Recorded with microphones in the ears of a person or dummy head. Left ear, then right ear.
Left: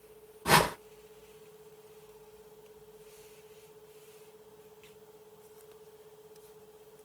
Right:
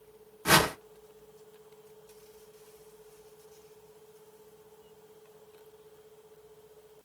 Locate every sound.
0.5 s a whoosh: 65° right (ahead or behind), 1.1 m